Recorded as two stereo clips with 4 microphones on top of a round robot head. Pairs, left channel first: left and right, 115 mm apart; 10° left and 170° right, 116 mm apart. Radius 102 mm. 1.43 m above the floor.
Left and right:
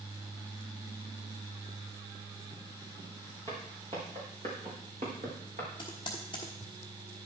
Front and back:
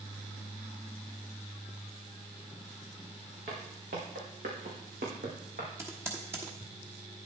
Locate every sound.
3.5 s footsteps: 150° right, 5 m; by 5.7 s 135° right, 3.5 m
5.8 s typing on a keyboard: 135° left, 1.1 m